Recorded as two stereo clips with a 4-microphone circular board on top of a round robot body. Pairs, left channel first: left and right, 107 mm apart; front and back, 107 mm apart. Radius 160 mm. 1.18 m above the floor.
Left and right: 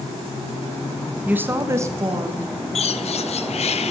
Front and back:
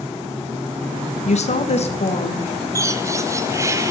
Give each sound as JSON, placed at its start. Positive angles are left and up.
{"t": 1.2, "sound": "a woman speaking", "azimuth_deg": -15, "distance_m": 1.3}
{"t": 2.8, "sound": "a bird", "azimuth_deg": 115, "distance_m": 0.9}